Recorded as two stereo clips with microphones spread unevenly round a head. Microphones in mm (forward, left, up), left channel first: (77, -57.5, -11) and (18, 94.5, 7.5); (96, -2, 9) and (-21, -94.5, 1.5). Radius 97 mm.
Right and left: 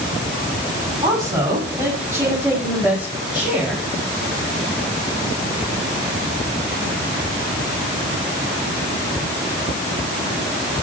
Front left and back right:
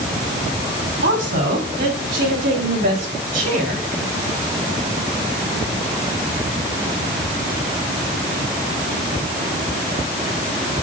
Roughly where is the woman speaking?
Behind.